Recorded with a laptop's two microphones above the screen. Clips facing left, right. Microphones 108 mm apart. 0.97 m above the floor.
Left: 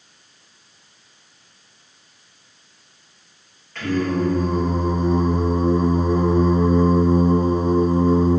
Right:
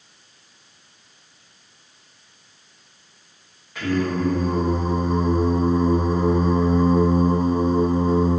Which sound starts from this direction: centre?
Singing, at 3.8 s.